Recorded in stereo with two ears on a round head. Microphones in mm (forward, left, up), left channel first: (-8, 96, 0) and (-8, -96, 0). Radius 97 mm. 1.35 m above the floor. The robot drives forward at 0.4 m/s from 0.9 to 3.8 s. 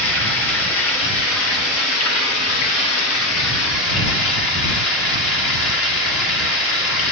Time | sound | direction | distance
0.0 | running water | 65° left (ahead or behind) | 1.7 m